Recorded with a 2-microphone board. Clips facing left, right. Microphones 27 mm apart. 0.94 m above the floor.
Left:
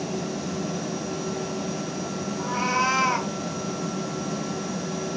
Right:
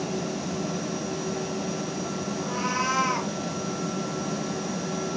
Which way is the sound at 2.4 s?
65° left (ahead or behind).